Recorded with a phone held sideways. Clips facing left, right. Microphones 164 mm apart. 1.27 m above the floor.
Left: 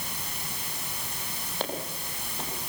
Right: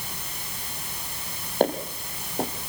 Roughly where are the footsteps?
Right.